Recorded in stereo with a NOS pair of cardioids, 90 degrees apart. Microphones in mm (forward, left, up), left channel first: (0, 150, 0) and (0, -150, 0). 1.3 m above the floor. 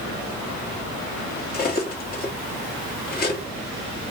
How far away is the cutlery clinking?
About 1.2 m.